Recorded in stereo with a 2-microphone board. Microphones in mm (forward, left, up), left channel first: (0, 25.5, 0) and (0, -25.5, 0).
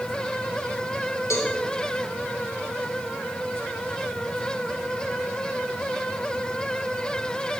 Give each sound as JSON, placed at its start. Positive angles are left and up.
{"t": 1.3, "sound": "a cowbell", "side_deg": 80, "distance_m": 5.0}